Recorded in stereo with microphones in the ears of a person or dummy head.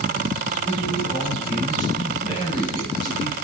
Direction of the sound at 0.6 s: 10° left (ahead or behind).